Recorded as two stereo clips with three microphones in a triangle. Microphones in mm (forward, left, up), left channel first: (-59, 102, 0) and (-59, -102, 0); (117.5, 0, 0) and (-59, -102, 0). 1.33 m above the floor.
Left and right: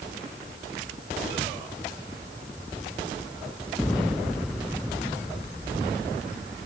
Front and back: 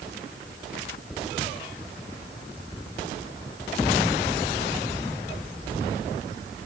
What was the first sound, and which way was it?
Only background noise.